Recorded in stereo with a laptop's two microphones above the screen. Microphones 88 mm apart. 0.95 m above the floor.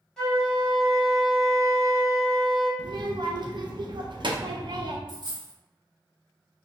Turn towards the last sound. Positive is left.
turn(degrees=-55)  # may be behind; listen again after turning